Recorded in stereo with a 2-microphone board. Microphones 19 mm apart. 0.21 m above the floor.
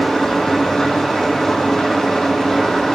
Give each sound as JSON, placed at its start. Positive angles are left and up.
{"t": 0.0, "sound": "an engine running", "side_deg": 35, "distance_m": 7.0}